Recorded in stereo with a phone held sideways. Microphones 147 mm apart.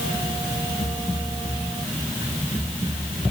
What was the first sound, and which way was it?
Only background noise.